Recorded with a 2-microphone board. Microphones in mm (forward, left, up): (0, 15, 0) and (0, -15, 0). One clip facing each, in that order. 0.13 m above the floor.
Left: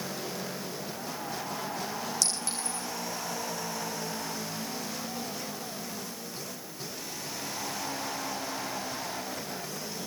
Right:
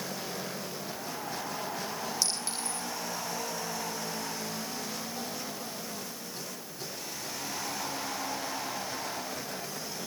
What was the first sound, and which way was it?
A clink, 25° right (ahead or behind).